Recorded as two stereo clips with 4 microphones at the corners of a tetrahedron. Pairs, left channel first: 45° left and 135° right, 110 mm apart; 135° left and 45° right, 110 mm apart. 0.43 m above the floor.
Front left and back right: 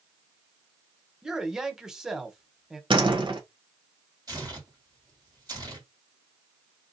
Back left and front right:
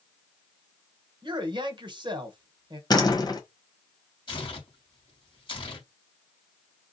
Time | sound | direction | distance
1.2 | a man speaking | 55° right | 1.1 m
2.9 | a door slam | 175° right | 1.2 m
4.3 | tearing paper | 175° left | 2.5 m